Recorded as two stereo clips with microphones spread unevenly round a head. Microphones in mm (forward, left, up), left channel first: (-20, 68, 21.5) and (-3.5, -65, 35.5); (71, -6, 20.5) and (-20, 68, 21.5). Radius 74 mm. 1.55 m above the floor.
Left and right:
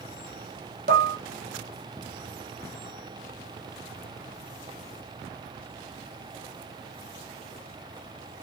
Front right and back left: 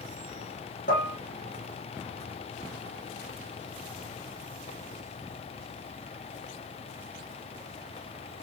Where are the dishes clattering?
55° right, 1.9 m.